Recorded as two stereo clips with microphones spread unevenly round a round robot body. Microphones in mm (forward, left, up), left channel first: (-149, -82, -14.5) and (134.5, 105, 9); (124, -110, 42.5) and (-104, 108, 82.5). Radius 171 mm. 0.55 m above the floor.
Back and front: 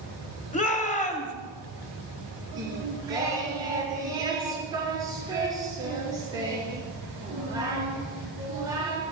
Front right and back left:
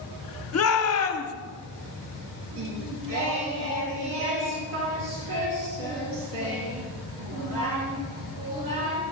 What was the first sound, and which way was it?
A shout, 80° right.